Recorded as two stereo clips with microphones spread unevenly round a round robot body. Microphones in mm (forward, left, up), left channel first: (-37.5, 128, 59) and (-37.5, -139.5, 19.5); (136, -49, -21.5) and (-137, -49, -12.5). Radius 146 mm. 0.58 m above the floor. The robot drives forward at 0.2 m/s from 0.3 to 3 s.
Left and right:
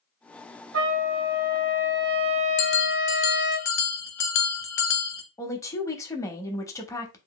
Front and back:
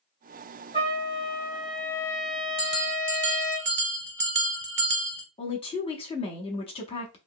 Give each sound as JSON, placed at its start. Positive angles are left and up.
{"t": 0.7, "sound": "a trumpet", "azimuth_deg": -65, "distance_m": 1.1}
{"t": 2.6, "sound": "a bell", "azimuth_deg": 125, "distance_m": 0.7}
{"t": 5.4, "sound": "a woman speaking", "azimuth_deg": 5, "distance_m": 0.6}